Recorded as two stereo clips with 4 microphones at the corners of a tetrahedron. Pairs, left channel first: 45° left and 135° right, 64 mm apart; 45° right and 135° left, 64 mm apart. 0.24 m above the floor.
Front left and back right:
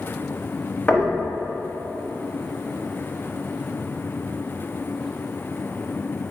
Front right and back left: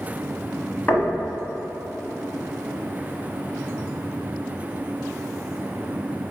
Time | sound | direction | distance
0.9 | knocking | 15° right | 0.8 m